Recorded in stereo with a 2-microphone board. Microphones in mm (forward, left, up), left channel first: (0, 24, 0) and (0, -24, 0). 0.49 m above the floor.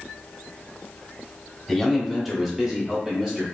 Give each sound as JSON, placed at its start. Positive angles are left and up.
{"t": 1.7, "sound": "a man speaking", "side_deg": 5, "distance_m": 0.9}